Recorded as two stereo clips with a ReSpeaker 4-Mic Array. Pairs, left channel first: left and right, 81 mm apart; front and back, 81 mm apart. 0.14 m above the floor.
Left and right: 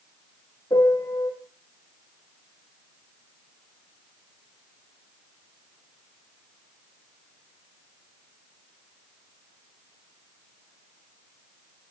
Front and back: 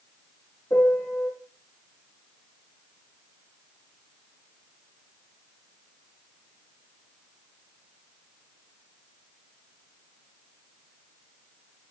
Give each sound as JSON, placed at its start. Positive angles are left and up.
{"t": 0.7, "sound": "a piano", "azimuth_deg": 45, "distance_m": 4.0}